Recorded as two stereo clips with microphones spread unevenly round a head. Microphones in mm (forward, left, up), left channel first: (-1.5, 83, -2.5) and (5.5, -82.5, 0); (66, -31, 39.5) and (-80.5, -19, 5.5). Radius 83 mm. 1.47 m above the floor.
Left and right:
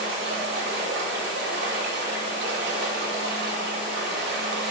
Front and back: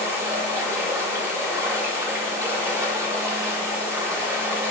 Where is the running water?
105° right, 2.5 m.